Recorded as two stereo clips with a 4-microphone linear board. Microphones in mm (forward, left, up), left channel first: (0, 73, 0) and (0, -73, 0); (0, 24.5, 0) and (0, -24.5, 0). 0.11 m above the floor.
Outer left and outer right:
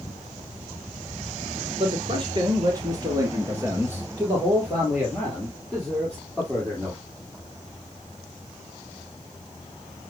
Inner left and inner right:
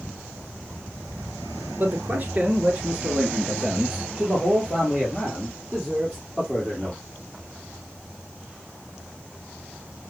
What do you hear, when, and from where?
1.8 s a man speaking: 40° right (ahead or behind), 2 m; by 7.0 s 5° left (ahead or behind), 4.5 m